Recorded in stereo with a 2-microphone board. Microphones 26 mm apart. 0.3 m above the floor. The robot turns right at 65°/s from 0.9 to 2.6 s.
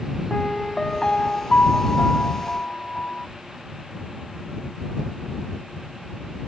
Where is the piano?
30° left; by 3.3 s 140° left.